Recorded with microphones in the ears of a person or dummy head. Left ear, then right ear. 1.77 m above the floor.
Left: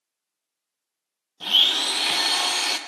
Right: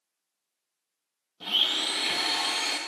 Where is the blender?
25° left (ahead or behind), 0.6 m.